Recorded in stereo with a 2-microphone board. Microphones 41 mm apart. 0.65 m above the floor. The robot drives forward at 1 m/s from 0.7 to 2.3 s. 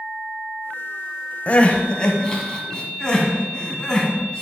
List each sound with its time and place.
1.5 s crying: 35° left (ahead or behind), 0.9 m; by 4.4 s 20° left (ahead or behind), 1.6 m